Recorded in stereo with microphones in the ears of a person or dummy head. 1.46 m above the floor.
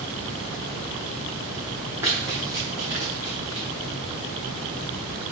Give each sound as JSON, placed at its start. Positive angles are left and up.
{"t": 2.0, "sound": "running footsteps", "side_deg": -10, "distance_m": 3.5}